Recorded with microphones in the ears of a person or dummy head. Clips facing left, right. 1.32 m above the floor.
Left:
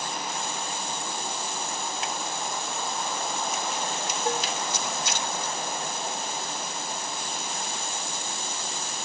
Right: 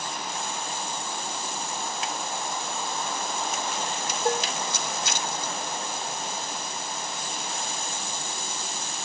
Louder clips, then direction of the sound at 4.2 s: Right 3 dB; 55° right (ahead or behind).